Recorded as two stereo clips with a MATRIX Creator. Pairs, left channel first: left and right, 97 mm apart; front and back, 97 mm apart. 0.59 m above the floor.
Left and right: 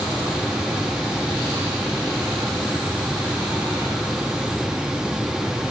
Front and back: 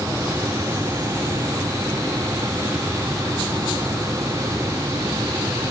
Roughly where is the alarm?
I don't hear an alarm.